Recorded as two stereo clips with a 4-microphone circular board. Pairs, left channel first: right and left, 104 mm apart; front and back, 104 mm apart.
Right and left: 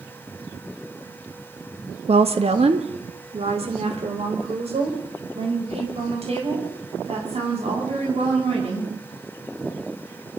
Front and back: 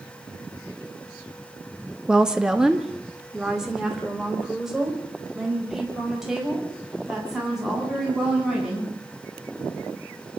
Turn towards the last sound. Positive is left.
turn(degrees=95)